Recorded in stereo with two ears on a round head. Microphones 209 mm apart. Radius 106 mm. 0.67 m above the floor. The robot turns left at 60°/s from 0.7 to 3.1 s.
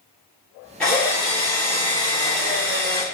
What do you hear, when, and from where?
0.8 s a drill: 5° left, 1.0 m; by 3.0 s 130° right, 1.0 m